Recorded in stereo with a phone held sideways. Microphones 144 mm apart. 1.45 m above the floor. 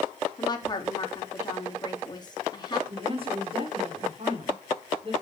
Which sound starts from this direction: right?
A woman speaking, at 2.9 s.